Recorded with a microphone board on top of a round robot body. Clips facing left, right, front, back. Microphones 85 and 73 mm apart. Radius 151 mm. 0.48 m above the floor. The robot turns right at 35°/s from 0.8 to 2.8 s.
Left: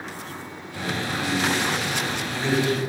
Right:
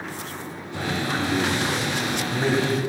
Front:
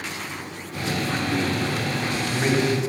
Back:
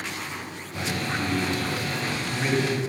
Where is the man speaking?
120° right, 2 m; by 2.8 s 50° right, 2 m.